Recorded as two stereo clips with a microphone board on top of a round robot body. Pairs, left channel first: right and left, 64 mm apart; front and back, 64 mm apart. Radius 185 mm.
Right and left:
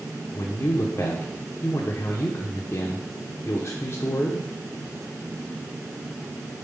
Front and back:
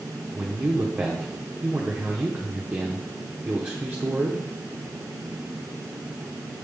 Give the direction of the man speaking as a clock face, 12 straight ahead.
4 o'clock.